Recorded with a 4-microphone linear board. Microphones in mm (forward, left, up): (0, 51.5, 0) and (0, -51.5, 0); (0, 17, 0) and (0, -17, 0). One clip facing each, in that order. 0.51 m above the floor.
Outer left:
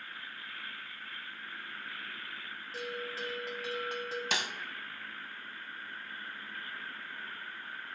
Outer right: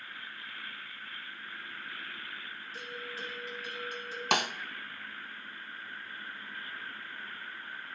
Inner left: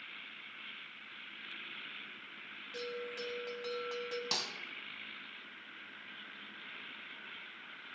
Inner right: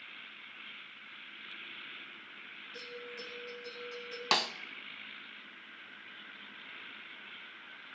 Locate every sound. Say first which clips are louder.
2.7 s a bell: outer left 5 dB, inner left 5 dB; 85° left, 1.5 m
4.3 s a snare drum: outer right 10 dB, inner right 12 dB; 60° right (ahead or behind), 0.5 m